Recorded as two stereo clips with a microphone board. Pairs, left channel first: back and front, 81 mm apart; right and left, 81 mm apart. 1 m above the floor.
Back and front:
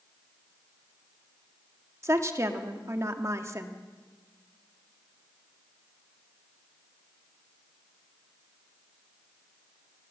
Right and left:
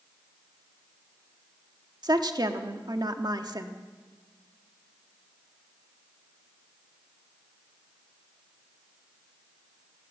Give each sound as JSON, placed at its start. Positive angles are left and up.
{"t": 2.0, "sound": "a woman speaking", "azimuth_deg": 55, "distance_m": 1.6}